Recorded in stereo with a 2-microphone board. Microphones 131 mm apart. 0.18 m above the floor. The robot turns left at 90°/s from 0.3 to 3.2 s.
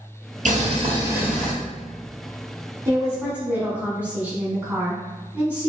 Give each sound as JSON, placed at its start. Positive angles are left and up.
{"t": 0.5, "sound": "boiling", "azimuth_deg": -100, "distance_m": 1.1}
{"t": 2.9, "sound": "a woman speaking", "azimuth_deg": -125, "distance_m": 1.1}